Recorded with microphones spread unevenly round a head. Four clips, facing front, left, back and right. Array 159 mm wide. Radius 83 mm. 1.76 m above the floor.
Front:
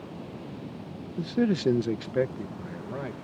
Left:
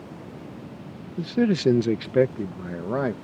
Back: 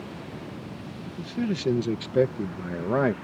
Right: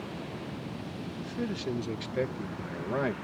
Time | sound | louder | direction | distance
1.2 | a man speaking | left 14 dB, front 4 dB | 70° left | ?